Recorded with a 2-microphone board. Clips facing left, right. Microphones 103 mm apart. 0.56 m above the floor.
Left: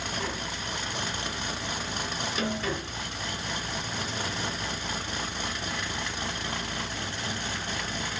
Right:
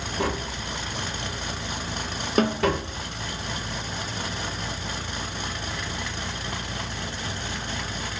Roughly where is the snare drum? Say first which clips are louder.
Right 10 dB; right.